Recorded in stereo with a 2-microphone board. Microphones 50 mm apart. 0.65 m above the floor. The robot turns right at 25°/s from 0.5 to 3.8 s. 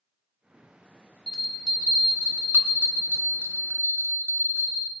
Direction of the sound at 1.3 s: 170° right.